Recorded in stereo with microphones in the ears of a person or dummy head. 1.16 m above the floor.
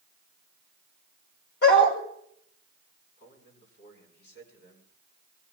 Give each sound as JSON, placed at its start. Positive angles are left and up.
{"t": 1.6, "sound": "a dog barking", "side_deg": 60, "distance_m": 7.0}
{"t": 3.2, "sound": "a man speaking", "side_deg": 55, "distance_m": 9.0}